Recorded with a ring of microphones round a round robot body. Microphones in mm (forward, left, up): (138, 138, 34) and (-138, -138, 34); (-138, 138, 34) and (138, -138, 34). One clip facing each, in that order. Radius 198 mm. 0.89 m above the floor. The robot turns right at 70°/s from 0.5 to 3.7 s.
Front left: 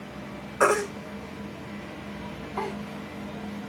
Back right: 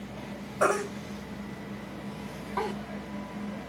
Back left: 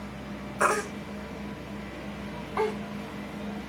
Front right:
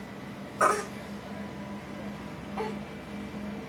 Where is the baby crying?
55° left, 2.0 m; by 2.7 s 155° right, 2.0 m.